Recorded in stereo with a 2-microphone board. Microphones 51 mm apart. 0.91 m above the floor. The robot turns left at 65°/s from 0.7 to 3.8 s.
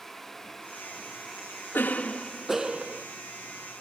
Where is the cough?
45° left, 1.0 m; by 3.0 s 40° right, 1.0 m.